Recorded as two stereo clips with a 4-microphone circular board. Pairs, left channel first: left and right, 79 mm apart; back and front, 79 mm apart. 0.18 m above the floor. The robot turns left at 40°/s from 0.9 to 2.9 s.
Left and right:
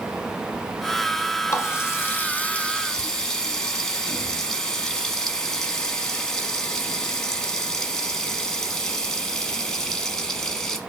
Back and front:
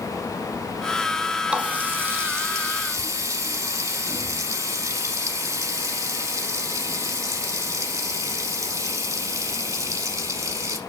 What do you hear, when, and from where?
1.5 s a running tap: 70° left, 0.9 m; by 10.8 s 10° left, 0.9 m